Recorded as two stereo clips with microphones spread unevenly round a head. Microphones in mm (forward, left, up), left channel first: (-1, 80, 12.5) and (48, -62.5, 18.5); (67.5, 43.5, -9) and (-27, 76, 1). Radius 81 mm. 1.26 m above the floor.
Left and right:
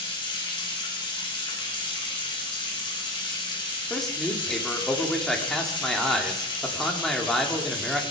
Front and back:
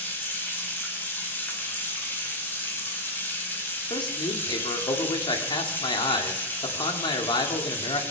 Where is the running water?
50° left, 5 m.